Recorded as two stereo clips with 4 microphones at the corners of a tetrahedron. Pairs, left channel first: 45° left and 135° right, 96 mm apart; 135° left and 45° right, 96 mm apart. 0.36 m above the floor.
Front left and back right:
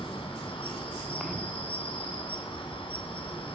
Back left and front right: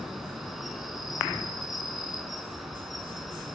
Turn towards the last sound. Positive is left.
turn(degrees=45)